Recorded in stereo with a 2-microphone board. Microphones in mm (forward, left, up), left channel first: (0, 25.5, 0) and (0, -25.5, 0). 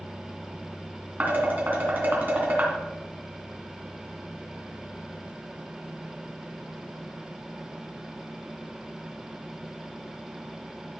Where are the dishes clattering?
40° right (ahead or behind), 2.5 m.